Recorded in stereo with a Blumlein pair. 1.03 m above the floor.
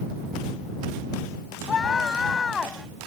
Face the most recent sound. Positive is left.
turn(degrees=15)